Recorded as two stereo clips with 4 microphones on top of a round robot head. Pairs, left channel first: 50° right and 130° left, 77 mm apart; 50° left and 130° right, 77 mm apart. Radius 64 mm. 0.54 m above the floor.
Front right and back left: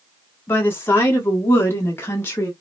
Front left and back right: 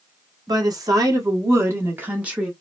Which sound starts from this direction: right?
A woman speaking, at 0.5 s.